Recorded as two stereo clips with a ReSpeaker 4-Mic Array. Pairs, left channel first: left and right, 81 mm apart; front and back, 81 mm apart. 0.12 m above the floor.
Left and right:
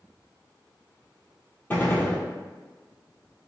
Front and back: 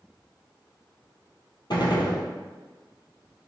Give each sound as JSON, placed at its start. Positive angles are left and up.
{"t": 1.7, "sound": "a gunshot", "azimuth_deg": 25, "distance_m": 0.8}